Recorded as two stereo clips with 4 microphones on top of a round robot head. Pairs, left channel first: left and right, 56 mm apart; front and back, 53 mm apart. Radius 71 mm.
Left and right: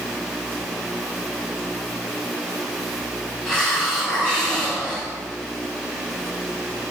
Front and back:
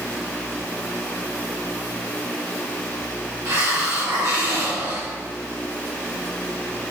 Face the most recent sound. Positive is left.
turn(degrees=170)